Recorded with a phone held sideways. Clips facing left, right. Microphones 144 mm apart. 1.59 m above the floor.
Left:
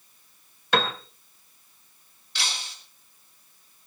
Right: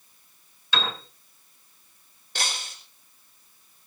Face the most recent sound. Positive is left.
turn(degrees=-50)  # may be behind; listen again after turning